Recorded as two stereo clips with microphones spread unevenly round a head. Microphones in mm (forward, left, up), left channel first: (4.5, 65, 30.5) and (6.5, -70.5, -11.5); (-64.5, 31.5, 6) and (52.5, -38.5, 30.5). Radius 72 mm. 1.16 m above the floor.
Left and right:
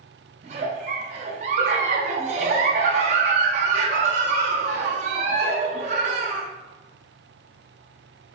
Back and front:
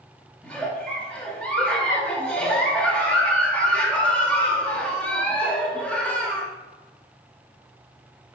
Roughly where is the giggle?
Behind right.